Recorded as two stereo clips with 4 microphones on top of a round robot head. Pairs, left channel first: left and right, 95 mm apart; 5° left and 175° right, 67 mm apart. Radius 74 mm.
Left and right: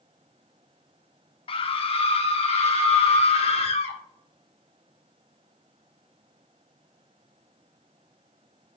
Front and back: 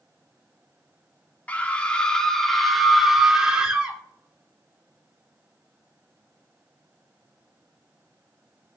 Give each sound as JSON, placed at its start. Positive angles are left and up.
{"t": 1.5, "sound": "a scream", "azimuth_deg": 70, "distance_m": 3.0}